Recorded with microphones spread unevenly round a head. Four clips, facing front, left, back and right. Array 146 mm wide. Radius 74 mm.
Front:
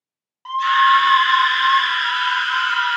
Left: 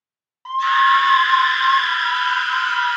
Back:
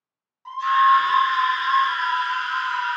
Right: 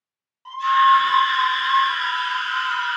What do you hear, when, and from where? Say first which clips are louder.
0.5 s a scream: even, front 2 dB; 50° left, 0.7 m